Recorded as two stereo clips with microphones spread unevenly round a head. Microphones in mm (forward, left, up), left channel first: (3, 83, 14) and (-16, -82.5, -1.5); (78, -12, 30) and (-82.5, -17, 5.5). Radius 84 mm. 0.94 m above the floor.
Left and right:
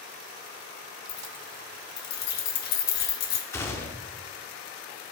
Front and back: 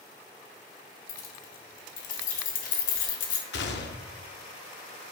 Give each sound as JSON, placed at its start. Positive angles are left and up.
{"t": 1.1, "sound": "keys jangling", "azimuth_deg": 45, "distance_m": 1.3}
{"t": 3.5, "sound": "a gunshot", "azimuth_deg": 10, "distance_m": 0.8}